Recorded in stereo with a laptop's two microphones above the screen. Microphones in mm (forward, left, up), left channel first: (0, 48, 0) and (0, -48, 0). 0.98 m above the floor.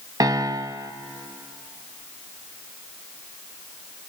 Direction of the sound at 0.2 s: 40° right (ahead or behind).